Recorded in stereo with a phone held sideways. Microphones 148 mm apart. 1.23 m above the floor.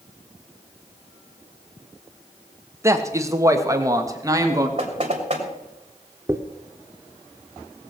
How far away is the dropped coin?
About 0.9 m.